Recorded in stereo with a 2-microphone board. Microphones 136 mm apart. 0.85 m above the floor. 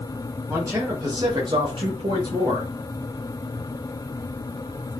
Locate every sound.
0.5 s a man speaking: 20° right (ahead or behind), 1.3 m; by 2.7 s 25° right (ahead or behind), 0.9 m